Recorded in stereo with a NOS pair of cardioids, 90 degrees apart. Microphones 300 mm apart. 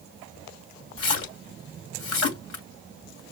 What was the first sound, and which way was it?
A splash, 50° left.